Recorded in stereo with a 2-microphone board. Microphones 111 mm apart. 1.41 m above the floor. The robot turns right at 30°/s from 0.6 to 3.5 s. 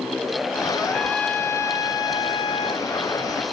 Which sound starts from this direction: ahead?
A trumpet, at 0.8 s.